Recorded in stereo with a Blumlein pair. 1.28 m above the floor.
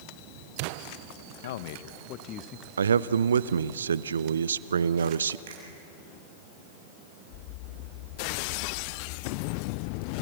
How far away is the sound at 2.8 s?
About 0.6 m.